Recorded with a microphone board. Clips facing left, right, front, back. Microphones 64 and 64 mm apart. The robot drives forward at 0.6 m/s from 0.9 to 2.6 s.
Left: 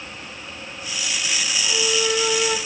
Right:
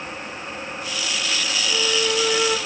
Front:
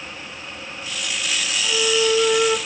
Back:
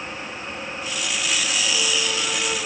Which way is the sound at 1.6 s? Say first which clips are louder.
Even, front 5 dB; 10° right.